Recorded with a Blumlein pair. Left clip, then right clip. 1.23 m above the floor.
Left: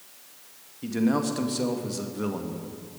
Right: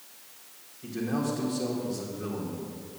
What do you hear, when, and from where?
0.8 s a man speaking: 35° left, 1.8 m